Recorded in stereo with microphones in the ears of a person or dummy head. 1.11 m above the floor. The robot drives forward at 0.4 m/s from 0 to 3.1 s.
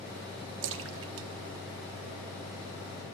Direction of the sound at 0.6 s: 65° right (ahead or behind).